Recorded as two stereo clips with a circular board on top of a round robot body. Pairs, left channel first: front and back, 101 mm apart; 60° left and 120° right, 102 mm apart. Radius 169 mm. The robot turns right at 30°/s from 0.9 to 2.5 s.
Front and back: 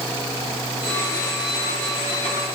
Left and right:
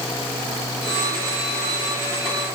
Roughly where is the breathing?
No breathing in this recording.